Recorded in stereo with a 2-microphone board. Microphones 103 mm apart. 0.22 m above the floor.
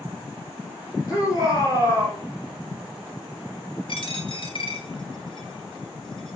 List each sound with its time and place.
1.1 s a shout: 35° left (ahead or behind), 3 m; by 2.2 s 30° left (ahead or behind), 4 m
3.9 s a dropped coin: 55° left (ahead or behind), 1.1 m